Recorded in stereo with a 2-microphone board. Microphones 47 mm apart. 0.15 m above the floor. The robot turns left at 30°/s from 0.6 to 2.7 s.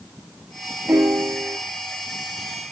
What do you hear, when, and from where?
0.9 s a piano: 70° right (ahead or behind), 0.9 m; by 1.6 s 50° right (ahead or behind), 0.9 m